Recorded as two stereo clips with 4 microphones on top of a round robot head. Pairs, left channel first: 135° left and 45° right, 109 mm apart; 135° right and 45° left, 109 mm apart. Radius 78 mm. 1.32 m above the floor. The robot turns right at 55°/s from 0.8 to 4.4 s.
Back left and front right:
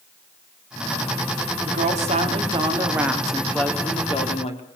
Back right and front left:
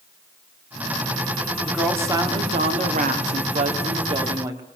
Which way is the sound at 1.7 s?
45° right.